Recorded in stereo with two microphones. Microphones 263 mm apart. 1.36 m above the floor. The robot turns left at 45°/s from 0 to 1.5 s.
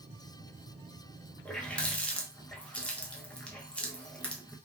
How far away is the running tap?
About 0.6 m.